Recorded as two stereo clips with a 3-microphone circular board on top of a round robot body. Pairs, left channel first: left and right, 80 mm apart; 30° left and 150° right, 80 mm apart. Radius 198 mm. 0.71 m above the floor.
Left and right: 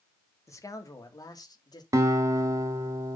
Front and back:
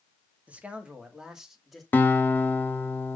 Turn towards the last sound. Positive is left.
turn(degrees=-35)